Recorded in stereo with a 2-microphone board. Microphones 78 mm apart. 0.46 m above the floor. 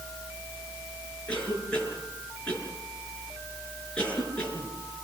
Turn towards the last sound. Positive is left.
turn(degrees=15)  # may be behind; listen again after turning